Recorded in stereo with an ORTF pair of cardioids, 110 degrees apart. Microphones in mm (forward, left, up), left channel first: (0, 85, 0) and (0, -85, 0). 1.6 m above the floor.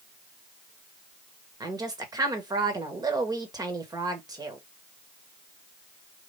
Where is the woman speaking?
25° right, 1.6 m.